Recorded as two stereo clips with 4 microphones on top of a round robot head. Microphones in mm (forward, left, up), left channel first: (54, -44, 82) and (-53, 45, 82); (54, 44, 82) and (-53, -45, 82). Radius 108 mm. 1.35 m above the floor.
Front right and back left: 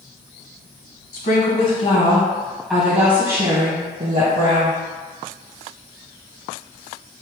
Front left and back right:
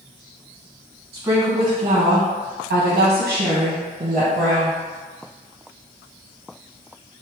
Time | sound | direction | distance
1.1 | a woman speaking | 65° right | 0.9 m